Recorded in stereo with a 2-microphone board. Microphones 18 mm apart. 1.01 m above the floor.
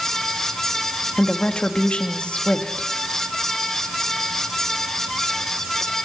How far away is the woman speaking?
About 1.8 m.